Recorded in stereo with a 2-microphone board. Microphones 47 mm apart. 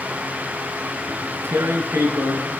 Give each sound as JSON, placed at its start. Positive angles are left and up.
{"t": 1.1, "sound": "tearing paper", "side_deg": -60, "distance_m": 4.5}